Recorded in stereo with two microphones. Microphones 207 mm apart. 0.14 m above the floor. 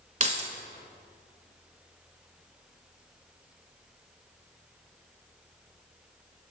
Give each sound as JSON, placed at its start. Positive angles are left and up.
{"t": 0.2, "sound": "keys jangling", "side_deg": -35, "distance_m": 1.1}